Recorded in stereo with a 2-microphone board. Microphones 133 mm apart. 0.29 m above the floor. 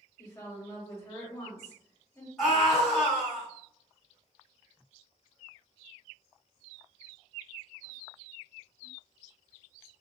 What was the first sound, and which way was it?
A woman speaking, 20° left (ahead or behind).